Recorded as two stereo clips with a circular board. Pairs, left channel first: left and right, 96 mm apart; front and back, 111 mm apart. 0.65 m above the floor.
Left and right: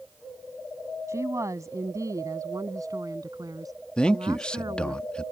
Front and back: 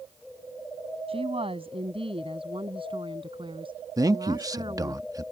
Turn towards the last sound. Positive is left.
turn(degrees=160)